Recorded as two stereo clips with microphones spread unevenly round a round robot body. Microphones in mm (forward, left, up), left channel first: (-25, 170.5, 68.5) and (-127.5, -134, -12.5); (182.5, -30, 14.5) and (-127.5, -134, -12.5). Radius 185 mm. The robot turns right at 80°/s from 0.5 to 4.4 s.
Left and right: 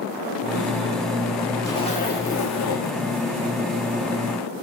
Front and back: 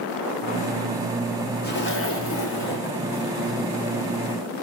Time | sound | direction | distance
1.6 | a zipper | 30° right | 1.1 m